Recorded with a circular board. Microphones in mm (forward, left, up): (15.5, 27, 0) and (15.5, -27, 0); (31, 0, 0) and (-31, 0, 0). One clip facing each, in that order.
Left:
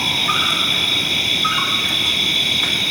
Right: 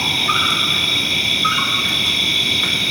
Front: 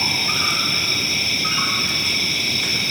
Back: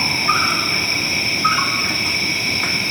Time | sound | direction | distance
0.0 | an insect | 160° left | 2.5 m